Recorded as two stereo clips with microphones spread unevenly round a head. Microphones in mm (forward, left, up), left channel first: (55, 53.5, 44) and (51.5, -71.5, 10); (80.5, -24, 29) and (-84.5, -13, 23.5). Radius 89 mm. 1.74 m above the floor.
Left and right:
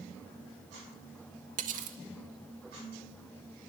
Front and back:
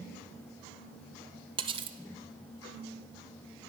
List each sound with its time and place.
1.6 s cutlery clinking: 130° right, 1.2 m